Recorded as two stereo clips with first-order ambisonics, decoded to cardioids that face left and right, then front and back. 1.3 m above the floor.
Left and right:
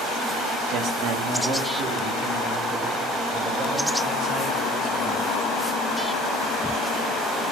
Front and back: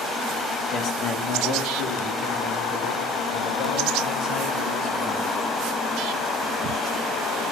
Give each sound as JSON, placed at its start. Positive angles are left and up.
{"t": 0.7, "sound": "a man speaking", "azimuth_deg": -50, "distance_m": 2.0}